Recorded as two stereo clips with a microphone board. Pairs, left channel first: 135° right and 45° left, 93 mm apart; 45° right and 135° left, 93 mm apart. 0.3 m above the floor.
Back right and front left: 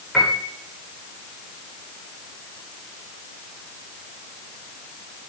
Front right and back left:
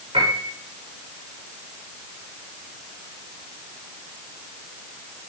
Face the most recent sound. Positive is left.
turn(degrees=135)